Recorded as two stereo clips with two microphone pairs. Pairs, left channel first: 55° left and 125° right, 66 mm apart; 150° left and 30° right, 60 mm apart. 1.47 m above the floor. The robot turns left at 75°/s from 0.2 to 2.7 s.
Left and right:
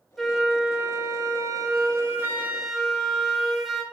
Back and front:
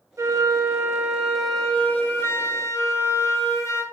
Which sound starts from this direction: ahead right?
A flute, at 0.2 s.